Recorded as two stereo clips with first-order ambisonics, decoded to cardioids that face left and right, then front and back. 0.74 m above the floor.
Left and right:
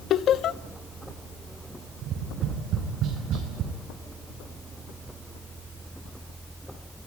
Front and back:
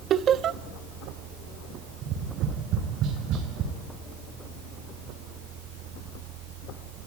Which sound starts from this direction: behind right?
Tapping, at 2.0 s.